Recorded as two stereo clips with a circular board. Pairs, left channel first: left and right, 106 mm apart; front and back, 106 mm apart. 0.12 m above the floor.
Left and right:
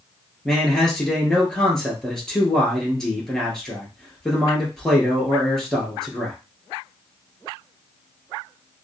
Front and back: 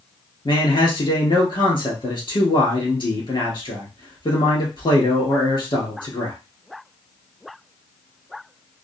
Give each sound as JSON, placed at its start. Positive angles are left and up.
{"t": 0.5, "sound": "a man speaking", "azimuth_deg": 5, "distance_m": 1.7}